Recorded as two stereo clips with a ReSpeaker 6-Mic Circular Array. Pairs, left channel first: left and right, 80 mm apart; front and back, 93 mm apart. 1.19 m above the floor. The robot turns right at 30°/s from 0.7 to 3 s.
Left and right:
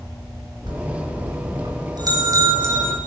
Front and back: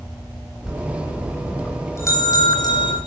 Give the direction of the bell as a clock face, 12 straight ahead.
3 o'clock.